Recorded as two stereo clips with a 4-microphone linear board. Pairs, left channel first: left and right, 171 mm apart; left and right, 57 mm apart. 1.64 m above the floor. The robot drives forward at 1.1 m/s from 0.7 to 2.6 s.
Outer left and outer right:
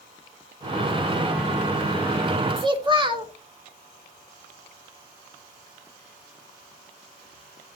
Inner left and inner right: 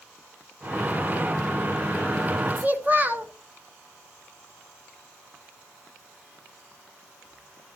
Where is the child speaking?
30° right (ahead or behind), 1.3 m.